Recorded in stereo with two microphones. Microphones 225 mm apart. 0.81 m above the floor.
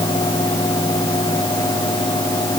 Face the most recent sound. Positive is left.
No sound to turn to.